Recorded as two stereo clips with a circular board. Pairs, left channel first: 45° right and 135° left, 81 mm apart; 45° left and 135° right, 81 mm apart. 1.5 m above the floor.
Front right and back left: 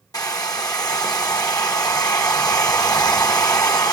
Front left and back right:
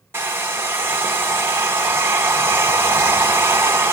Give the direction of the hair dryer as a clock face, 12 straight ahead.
3 o'clock.